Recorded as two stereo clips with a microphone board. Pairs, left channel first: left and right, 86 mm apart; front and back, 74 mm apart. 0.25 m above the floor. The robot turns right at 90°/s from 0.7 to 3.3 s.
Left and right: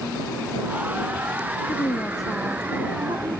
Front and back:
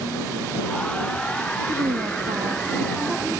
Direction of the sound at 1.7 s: 130° left.